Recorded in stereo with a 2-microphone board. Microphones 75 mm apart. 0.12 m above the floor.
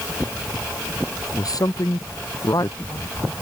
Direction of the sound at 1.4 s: 55° left (ahead or behind).